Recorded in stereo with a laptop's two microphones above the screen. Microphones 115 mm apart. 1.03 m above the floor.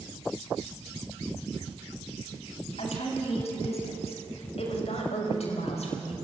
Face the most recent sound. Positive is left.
turn(degrees=70)  # may be behind; listen again after turning